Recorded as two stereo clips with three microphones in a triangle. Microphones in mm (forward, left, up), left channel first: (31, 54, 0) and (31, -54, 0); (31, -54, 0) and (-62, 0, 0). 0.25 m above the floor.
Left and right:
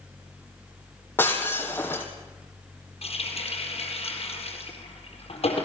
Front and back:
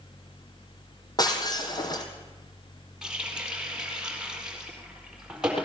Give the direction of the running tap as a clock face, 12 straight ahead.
10 o'clock.